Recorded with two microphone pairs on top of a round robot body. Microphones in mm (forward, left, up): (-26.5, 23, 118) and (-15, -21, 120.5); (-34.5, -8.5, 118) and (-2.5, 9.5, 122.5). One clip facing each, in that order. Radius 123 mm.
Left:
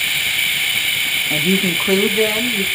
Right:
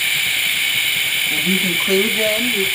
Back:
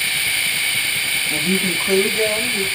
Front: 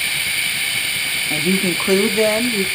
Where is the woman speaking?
80° left, 0.8 m; by 2.6 s 15° left, 1.0 m.